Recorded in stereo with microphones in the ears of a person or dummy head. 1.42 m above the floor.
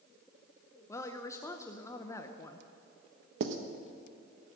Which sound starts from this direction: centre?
A woman speaking, at 0.9 s.